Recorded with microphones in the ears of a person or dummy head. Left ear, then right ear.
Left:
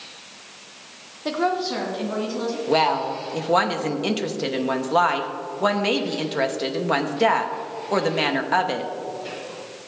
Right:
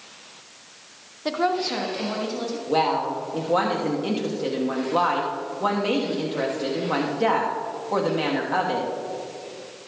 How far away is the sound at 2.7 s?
About 1.0 m.